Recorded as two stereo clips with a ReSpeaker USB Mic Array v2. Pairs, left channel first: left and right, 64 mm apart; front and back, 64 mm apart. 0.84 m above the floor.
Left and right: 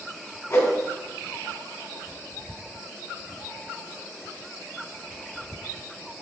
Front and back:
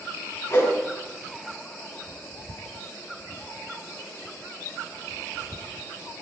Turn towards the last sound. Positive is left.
turn(degrees=40)